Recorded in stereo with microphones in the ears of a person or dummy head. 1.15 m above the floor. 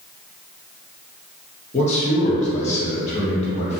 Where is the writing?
No writing in this recording.